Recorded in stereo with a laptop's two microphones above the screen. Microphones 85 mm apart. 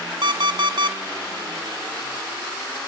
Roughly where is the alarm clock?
Right.